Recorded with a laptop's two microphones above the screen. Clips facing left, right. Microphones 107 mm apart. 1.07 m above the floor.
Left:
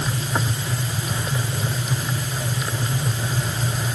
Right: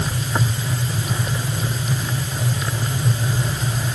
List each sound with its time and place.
Only background noise.